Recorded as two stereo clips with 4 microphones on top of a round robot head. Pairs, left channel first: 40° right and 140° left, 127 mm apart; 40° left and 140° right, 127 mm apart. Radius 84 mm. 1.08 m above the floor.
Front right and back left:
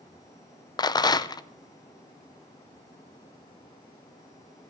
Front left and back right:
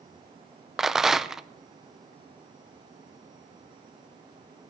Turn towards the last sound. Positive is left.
turn(degrees=-55)